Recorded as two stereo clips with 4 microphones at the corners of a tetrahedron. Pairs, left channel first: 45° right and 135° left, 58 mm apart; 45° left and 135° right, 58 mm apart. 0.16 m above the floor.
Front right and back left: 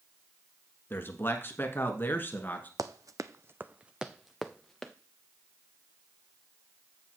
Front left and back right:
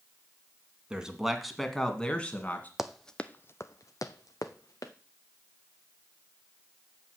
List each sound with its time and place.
0.9 s a man speaking: 65° right, 1.4 m; by 2.7 s 5° right, 1.6 m
2.8 s running footsteps: 145° left, 0.6 m; by 4.9 s 35° left, 1.2 m